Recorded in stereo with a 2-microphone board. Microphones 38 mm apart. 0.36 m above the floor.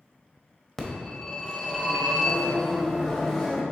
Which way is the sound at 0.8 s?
10° left (ahead or behind).